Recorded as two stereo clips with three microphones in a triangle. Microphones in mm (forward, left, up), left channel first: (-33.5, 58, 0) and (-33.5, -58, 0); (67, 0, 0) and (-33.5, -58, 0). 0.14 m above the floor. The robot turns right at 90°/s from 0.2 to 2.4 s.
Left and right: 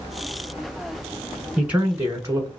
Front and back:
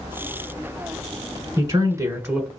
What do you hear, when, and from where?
1.6 s a man speaking: 170° right, 1.1 m; by 2.5 s 95° right, 1.1 m